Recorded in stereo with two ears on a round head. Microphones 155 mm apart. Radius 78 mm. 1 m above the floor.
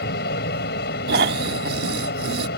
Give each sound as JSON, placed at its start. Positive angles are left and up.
{"t": 0.0, "sound": "an aircraft", "side_deg": 60}
{"t": 1.1, "sound": "snoring", "side_deg": -60}